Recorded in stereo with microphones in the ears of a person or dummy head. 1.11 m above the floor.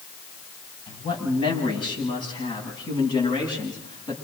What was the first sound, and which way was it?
A man speaking, 30° left (ahead or behind).